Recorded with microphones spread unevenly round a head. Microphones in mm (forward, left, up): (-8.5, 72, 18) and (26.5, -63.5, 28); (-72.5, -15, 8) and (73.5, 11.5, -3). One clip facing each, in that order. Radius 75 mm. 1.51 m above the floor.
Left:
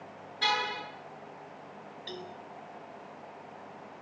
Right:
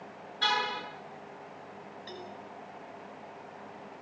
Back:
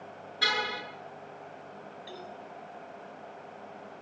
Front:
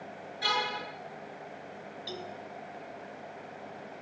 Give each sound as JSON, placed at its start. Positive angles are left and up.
{"t": 0.4, "sound": "a car horn", "azimuth_deg": -175, "distance_m": 9.5}
{"t": 2.1, "sound": "a cowbell", "azimuth_deg": 50, "distance_m": 5.0}